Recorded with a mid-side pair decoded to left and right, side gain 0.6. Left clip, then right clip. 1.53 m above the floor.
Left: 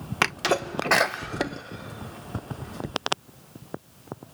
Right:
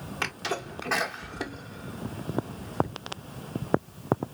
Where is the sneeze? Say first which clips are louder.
Left 8 dB; 55° left, 1.0 m.